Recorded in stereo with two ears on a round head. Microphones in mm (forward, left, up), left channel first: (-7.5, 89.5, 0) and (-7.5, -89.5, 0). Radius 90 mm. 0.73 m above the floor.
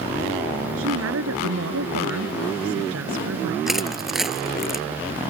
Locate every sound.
0.8 s a woman speaking: 80° right
3.7 s crushing: centre (ahead or behind)